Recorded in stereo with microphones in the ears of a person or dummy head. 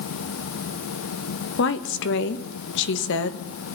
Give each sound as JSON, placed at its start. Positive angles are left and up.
{"t": 1.6, "sound": "a woman speaking", "side_deg": 75, "distance_m": 1.8}